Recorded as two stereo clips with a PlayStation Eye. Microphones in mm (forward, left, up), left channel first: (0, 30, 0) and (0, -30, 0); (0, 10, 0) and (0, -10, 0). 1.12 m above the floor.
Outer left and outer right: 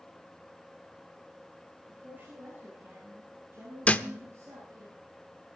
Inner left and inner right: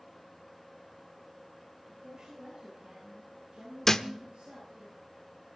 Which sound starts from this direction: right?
A woman speaking, at 1.9 s.